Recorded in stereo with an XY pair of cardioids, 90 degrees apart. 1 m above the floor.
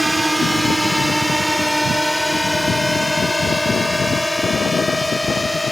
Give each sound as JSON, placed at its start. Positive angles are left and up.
{"t": 0.0, "sound": "a drone", "azimuth_deg": -5}